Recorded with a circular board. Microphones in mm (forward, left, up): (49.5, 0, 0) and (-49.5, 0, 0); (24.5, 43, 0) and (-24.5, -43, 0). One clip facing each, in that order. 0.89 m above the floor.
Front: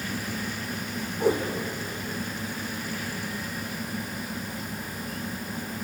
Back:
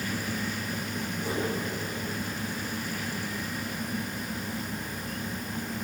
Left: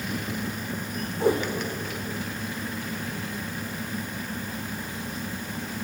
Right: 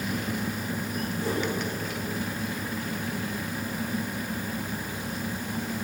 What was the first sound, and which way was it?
A whoosh, 30° left.